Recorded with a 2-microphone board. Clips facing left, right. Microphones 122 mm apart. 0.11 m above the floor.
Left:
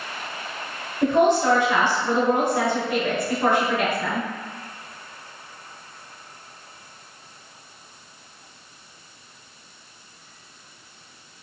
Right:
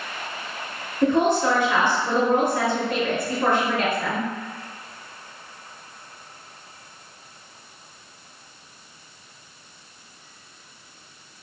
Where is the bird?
No bird in this recording.